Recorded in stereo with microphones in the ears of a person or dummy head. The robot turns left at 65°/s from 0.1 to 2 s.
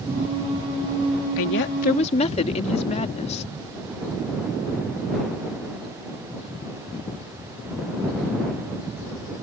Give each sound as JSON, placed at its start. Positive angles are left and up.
{"t": 1.4, "sound": "a woman speaking", "azimuth_deg": 70}